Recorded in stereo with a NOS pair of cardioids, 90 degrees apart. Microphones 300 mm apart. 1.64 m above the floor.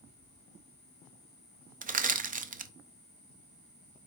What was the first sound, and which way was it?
Crushing, 30° right.